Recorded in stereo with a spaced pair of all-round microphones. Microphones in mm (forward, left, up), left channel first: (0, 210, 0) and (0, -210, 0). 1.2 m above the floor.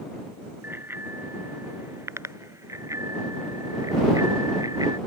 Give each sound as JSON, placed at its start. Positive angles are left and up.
{"t": 0.6, "sound": "a bicycle bell", "side_deg": -5}